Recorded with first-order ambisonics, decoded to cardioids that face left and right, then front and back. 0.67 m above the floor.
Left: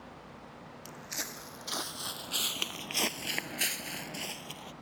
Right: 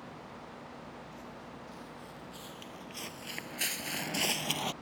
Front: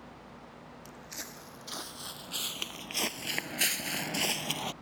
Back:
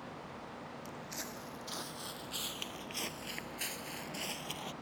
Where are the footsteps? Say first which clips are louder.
Left 7 dB, front 2 dB; 85° left; by 4.7 s 55° right.